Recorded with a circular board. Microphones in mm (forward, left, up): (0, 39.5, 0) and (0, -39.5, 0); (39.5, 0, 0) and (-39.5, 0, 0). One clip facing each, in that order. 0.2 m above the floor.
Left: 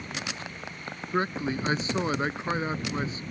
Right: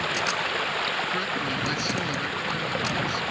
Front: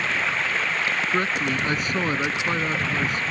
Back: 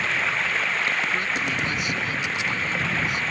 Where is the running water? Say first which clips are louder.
Right 10 dB, even; 90° right.